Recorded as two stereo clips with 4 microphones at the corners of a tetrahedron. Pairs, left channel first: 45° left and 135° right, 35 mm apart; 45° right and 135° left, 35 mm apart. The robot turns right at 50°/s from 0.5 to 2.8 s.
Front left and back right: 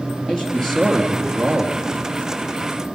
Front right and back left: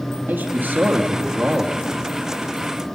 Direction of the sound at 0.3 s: 120° left.